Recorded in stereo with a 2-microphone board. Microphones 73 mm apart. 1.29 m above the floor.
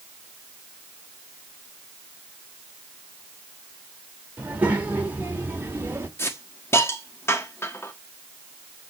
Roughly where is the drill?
No drill in this recording.